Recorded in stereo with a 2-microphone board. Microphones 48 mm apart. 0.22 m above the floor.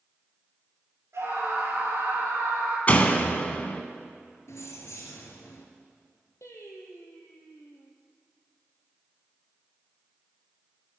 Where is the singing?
85° left, 2.5 m.